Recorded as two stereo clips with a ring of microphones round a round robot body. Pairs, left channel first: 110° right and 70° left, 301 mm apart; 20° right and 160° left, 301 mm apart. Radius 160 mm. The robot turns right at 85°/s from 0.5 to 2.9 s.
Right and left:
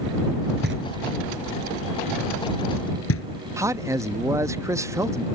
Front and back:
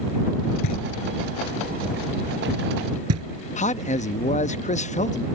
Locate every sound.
0.6 s knocking: 5° left; by 3.2 s 160° right
3.6 s a man speaking: straight ahead